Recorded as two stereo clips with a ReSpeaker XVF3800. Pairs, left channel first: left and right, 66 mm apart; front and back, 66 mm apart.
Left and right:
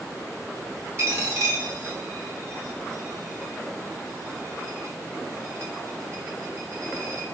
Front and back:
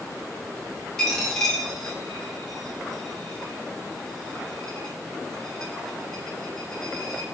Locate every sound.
1.0 s a dropped coin: 75° right, 1.1 m